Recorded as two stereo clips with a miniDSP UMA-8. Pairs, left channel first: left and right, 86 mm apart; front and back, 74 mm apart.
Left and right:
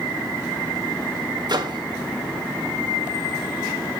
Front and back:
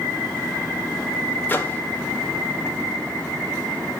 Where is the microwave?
60° right, 1.6 m.